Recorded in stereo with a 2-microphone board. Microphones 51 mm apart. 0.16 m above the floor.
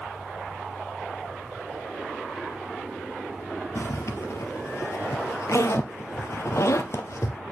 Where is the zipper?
70° left (ahead or behind), 1.3 m.